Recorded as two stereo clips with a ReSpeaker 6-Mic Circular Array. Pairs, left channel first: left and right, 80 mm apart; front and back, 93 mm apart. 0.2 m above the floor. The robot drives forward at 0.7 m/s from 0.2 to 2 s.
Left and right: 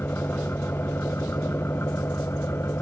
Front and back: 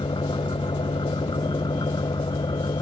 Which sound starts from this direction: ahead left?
An engine running, at 0.0 s.